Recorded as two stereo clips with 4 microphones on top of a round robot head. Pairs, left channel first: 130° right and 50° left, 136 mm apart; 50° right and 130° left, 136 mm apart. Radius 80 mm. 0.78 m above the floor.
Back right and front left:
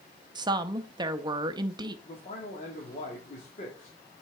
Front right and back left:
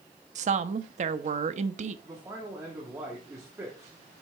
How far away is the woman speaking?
About 0.6 m.